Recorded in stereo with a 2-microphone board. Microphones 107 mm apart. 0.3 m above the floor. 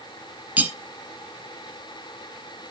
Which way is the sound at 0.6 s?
15° right (ahead or behind).